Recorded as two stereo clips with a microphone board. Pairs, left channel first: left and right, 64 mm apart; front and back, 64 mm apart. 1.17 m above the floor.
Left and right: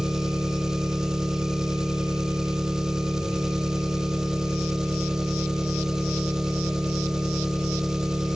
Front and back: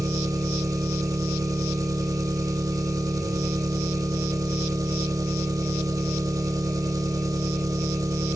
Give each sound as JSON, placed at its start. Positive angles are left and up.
{"t": 0.0, "sound": "an engine running", "azimuth_deg": -170, "distance_m": 2.0}